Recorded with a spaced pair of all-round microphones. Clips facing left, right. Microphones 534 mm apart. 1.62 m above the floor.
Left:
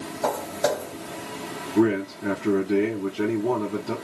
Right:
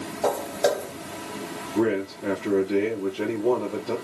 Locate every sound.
0.2 s footsteps: 35° left (ahead or behind), 3.5 m
1.8 s a man speaking: 10° left (ahead or behind), 2.0 m